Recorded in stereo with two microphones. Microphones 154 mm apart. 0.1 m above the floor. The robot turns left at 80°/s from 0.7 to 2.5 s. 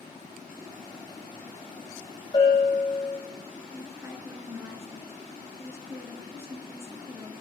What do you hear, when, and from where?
2.3 s a bell: 30° left (ahead or behind), 3.5 m; by 3.2 s 45° left (ahead or behind), 3.5 m
3.7 s a woman speaking: 20° right (ahead or behind), 1.1 m